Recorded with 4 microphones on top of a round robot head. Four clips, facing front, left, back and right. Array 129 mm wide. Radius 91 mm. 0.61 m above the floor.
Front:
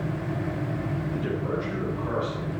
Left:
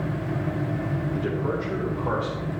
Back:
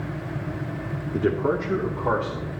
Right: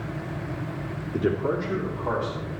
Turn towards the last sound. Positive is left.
turn(degrees=165)